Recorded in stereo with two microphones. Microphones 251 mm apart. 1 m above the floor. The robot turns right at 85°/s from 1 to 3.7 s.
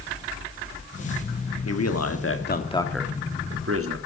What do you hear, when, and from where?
1.6 s a man speaking: 70° left, 1.7 m; by 4.0 s 120° right, 1.7 m